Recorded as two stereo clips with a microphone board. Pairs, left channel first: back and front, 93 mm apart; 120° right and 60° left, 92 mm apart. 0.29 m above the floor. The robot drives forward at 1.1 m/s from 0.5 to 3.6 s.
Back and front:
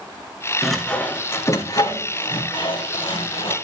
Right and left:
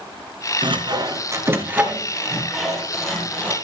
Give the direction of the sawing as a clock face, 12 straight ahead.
9 o'clock.